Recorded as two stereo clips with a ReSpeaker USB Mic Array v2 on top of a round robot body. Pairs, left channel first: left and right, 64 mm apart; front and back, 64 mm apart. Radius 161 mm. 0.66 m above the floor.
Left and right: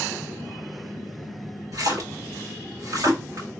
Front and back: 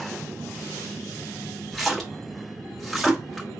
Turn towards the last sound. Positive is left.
turn(degrees=-85)